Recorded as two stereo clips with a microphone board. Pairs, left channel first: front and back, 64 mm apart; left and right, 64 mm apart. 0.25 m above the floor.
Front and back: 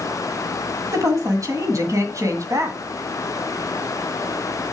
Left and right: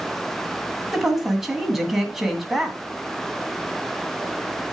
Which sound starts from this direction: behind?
A woman speaking, at 0.9 s.